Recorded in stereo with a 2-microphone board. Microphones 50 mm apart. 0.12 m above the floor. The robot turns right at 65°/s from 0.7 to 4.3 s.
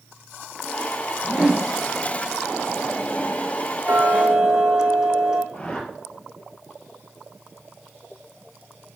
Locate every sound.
1.2 s a whoosh: 175° right, 0.8 m; by 1.7 s 145° right, 0.8 m
3.9 s ticking: 40° right (ahead or behind), 1.2 m; by 5.4 s 15° right (ahead or behind), 1.2 m
5.5 s a whoosh: 25° left (ahead or behind), 1.8 m